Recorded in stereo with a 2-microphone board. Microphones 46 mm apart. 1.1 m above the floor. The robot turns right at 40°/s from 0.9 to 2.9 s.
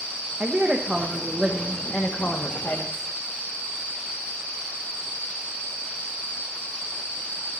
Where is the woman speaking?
15° right, 1.3 m; by 3.1 s 65° left, 1.3 m.